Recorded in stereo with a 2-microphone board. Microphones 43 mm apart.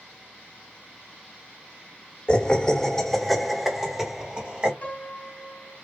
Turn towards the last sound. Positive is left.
turn(degrees=35)  # may be behind; listen again after turning